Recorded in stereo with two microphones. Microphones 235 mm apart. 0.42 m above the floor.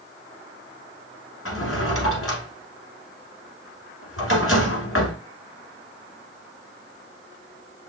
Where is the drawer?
65° left (ahead or behind), 1.4 m.